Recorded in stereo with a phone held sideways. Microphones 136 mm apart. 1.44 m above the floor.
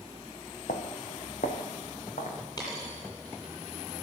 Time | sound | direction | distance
0.7 | footsteps | 65° left (ahead or behind) | 3.5 m
2.6 | a dropped coin | 30° left (ahead or behind) | 7.5 m